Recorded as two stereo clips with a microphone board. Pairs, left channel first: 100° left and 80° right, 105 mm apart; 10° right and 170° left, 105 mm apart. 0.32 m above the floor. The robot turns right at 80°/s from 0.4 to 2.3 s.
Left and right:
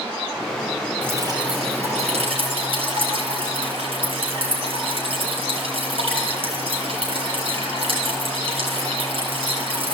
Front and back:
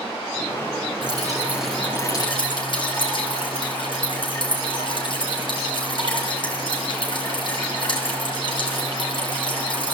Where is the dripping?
155° right, 6 m; by 9.9 s 55° right, 6 m.